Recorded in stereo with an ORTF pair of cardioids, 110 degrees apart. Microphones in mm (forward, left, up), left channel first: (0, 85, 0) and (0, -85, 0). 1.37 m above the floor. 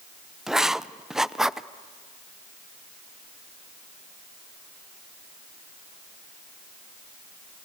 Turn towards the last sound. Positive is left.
turn(degrees=-5)